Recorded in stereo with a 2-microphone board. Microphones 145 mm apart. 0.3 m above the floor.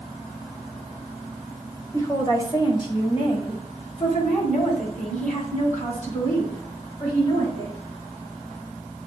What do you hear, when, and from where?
1.9 s a woman speaking: 20° left (ahead or behind), 1.5 m; by 7.8 s 55° left (ahead or behind), 4 m